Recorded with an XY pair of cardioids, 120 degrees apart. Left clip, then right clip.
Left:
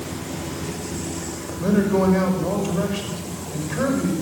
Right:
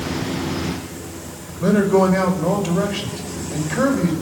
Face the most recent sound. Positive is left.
turn(degrees=-25)